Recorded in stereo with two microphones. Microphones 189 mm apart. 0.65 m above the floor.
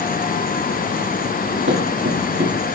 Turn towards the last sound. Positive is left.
turn(degrees=-80)